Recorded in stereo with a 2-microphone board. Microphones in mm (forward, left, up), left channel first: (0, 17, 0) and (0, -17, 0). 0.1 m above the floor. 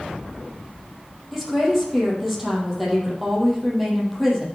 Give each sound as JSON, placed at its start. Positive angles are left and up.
{"t": 1.3, "sound": "a woman speaking", "side_deg": -5, "distance_m": 3.5}